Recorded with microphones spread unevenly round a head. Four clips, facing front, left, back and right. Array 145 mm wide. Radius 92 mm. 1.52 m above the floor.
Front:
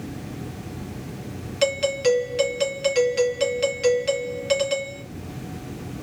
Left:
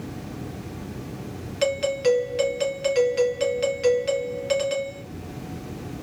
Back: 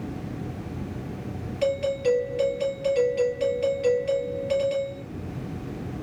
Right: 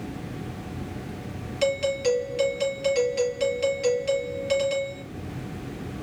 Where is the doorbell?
15° left, 3.5 m.